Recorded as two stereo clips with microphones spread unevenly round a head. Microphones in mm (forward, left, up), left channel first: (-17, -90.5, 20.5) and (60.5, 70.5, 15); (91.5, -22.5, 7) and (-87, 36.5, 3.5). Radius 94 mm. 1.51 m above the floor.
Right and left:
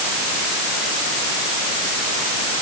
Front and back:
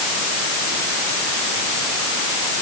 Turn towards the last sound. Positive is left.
No sound to turn to.